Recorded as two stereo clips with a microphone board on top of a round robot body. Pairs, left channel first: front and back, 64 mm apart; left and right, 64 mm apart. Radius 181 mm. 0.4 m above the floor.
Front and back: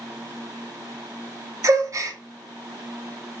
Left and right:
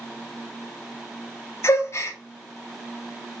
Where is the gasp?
140° left, 0.6 m.